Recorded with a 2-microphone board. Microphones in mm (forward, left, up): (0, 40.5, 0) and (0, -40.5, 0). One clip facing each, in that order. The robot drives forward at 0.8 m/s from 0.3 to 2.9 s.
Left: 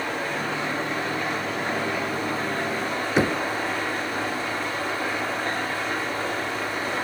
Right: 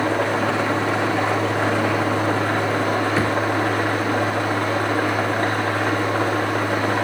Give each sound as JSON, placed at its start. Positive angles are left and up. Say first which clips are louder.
{"t": 0.0, "sound": "an engine running", "louder": "right 8 dB", "side_deg": -75, "distance_m": 3.0}
{"t": 3.2, "sound": "knocking", "louder": "right 2 dB", "side_deg": 20, "distance_m": 0.9}